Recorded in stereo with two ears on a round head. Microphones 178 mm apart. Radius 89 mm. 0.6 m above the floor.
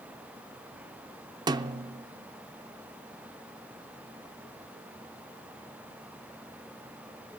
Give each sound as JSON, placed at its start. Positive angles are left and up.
{"t": 1.5, "sound": "a snare drum", "side_deg": -20, "distance_m": 0.5}